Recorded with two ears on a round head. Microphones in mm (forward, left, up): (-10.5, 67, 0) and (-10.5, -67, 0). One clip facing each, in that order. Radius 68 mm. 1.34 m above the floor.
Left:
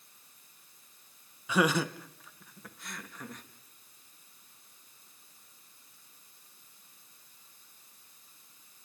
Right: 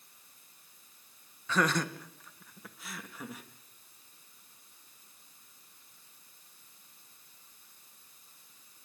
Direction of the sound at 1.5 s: 10° left (ahead or behind).